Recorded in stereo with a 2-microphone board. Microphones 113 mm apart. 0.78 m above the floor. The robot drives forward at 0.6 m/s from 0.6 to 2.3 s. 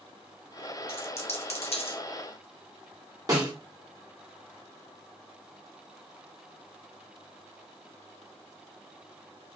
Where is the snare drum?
35° right (ahead or behind), 1.2 m.